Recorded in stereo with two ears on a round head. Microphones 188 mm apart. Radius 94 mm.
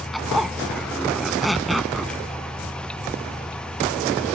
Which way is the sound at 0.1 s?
Centre (ahead or behind).